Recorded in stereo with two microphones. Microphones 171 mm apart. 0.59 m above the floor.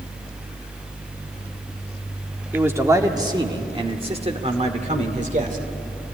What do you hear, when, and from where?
2.5 s a man speaking: 10° right (ahead or behind), 1.6 m; by 5.6 s 50° right (ahead or behind), 2.5 m